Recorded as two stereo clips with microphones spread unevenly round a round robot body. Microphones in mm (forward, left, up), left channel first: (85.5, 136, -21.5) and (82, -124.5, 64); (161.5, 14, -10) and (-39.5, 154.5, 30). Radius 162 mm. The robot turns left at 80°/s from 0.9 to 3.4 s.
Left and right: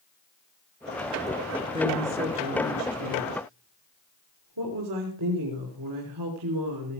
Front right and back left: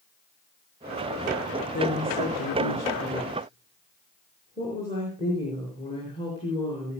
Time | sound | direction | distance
1.7 | a woman speaking | 30° left | 4.5 m